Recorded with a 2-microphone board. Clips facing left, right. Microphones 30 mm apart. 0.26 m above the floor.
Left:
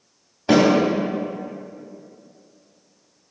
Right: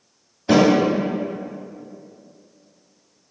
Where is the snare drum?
40° left (ahead or behind), 2.0 m.